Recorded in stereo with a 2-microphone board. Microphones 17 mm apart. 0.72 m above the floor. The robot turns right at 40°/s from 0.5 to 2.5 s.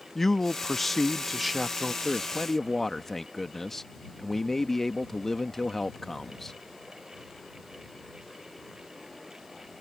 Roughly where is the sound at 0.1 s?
Behind left.